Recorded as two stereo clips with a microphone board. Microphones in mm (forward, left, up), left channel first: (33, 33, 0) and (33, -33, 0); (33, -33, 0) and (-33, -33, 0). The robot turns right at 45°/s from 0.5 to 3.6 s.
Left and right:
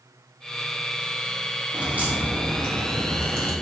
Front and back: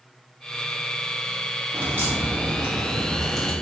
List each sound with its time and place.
1.7 s a crack: 150° right, 0.7 m; by 3.5 s 70° right, 0.7 m